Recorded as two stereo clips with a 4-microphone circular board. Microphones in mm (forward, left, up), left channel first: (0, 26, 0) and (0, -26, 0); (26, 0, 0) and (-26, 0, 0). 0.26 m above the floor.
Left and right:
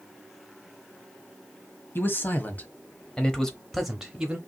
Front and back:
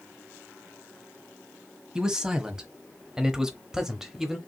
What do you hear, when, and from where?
1.9 s a man speaking: 105° left, 1.3 m; by 4.4 s 105° right, 0.9 m